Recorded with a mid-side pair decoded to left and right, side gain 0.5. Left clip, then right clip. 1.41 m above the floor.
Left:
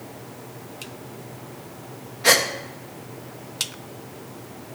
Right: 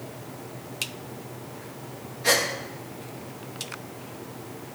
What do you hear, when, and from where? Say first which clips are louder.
2.2 s a gasp: left 5 dB; 45° left, 2 m